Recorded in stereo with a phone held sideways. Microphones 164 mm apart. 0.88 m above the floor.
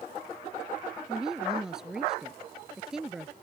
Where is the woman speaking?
5° right (ahead or behind).